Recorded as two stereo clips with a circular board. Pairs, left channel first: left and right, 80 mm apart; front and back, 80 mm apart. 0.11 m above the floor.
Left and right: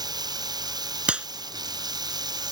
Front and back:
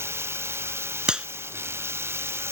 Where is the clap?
125° right.